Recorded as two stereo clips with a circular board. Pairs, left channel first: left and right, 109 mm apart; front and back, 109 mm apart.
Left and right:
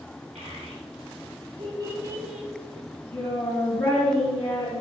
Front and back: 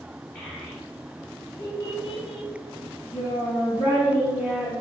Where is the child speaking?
80° right, 1.2 m; by 4.7 s 60° left, 1.5 m.